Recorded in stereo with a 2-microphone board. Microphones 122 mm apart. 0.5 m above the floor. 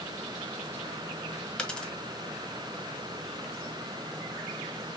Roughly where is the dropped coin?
Centre.